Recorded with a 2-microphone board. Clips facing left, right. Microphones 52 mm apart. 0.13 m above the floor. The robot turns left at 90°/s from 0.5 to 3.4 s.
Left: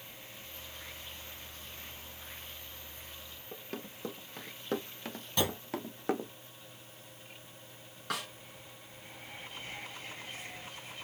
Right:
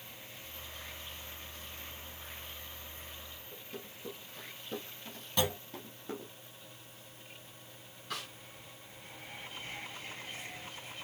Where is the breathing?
No breathing in this recording.